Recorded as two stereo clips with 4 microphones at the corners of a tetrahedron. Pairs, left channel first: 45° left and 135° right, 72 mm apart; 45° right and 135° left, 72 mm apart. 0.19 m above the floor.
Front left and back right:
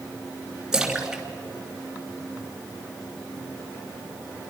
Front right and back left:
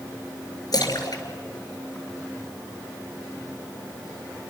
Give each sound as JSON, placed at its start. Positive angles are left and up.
{"t": 0.7, "sound": "a splash", "azimuth_deg": -55, "distance_m": 2.5}